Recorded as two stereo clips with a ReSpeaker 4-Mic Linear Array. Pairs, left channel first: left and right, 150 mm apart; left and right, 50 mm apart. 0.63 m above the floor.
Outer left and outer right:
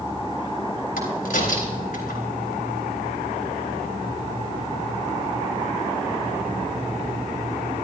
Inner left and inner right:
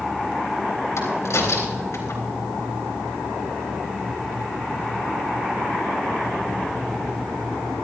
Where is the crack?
75° left (ahead or behind), 4 m.